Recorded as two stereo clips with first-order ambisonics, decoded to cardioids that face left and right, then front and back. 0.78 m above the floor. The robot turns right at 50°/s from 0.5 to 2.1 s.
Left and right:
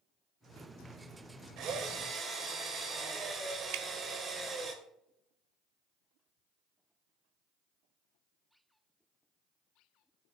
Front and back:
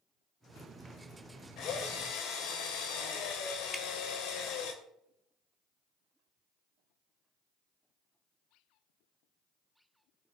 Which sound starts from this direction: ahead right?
A drill, at 1.6 s.